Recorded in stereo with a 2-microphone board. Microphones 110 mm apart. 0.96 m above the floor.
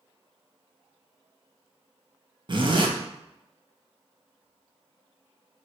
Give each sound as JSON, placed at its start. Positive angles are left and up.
{"t": 2.5, "sound": "a zipper", "side_deg": -45, "distance_m": 0.6}